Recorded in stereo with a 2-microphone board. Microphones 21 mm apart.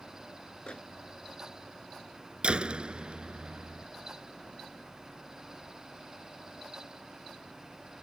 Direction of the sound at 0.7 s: 70° left (ahead or behind).